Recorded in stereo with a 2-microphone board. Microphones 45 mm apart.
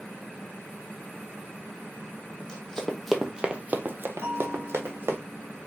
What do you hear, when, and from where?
2.4 s running footsteps: 25° left (ahead or behind), 0.8 m; by 5.2 s 65° right (ahead or behind), 1.0 m
4.2 s a bell: 55° right (ahead or behind), 1.2 m